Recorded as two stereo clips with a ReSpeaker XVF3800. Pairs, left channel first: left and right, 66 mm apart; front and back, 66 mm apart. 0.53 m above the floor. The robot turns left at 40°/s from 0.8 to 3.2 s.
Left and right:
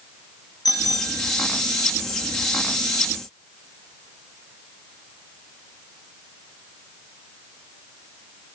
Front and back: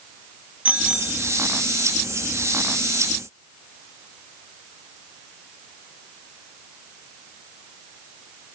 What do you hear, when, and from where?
0.7 s a bicycle bell: 110° left, 3 m; by 1.3 s 90° left, 3 m